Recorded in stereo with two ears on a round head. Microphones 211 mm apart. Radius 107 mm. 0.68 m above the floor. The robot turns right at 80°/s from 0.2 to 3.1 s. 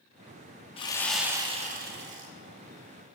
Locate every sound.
0.8 s sawing: 150° left, 0.9 m; by 2.3 s 90° right, 0.9 m